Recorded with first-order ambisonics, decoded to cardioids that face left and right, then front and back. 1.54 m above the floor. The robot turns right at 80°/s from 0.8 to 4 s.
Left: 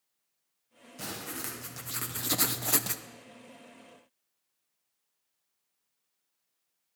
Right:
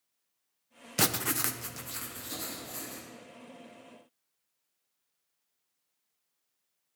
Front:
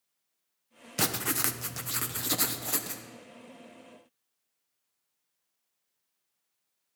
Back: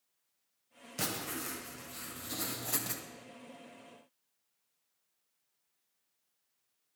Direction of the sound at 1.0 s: 65° right.